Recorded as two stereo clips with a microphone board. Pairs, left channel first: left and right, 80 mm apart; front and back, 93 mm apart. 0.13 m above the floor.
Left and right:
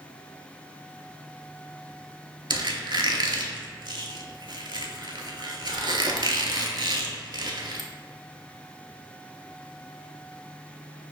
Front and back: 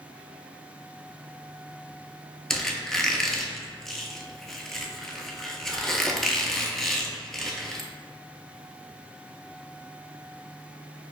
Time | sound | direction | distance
2.5 | a squeak | 85° right | 0.5 m